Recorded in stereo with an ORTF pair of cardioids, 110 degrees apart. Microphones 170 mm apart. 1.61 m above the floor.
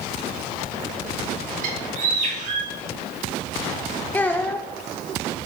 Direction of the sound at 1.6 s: 50° right.